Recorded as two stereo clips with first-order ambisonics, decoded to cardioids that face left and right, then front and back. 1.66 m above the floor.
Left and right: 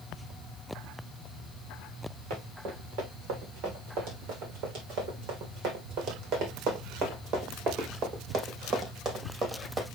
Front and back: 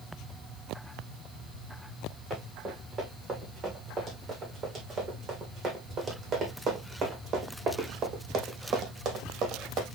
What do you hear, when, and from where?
2.3 s running footsteps: 110° right, 6 m; by 9.8 s 150° right, 2.5 m